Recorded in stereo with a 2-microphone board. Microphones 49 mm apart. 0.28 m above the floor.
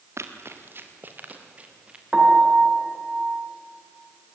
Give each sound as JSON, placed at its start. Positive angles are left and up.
{"t": 0.2, "sound": "running footsteps", "side_deg": -65, "distance_m": 3.0}
{"t": 2.1, "sound": "a piano", "side_deg": -20, "distance_m": 3.5}